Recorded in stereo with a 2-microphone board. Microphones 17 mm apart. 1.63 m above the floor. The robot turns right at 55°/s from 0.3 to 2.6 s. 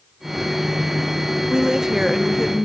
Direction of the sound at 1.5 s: 45° right.